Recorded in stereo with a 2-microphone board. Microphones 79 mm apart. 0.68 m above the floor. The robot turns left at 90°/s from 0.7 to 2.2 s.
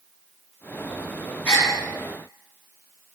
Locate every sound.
1.4 s a gasp: 20° left (ahead or behind), 1.6 m; by 1.7 s 35° left (ahead or behind), 1.6 m